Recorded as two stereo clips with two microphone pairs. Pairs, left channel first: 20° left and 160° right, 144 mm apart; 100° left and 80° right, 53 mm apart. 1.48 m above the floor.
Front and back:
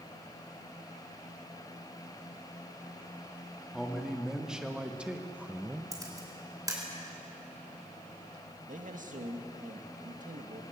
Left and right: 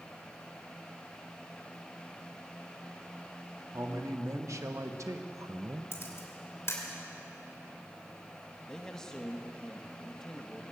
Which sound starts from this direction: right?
A man speaking, at 3.7 s.